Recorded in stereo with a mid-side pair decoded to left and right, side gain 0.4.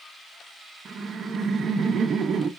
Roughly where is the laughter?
Ahead right.